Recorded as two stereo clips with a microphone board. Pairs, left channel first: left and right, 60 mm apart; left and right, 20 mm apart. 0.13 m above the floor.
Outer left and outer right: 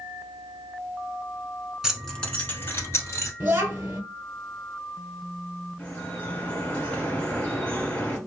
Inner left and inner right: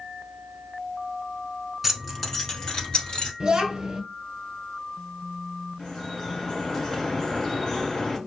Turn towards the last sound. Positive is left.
turn(degrees=25)  # may be behind; listen again after turning